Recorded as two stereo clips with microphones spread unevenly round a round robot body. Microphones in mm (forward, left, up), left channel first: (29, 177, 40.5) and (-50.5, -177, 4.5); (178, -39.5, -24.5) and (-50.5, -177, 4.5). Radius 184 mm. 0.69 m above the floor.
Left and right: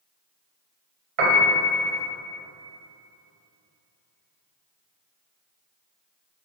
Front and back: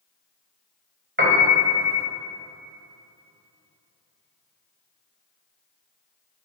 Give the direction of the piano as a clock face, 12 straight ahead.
3 o'clock.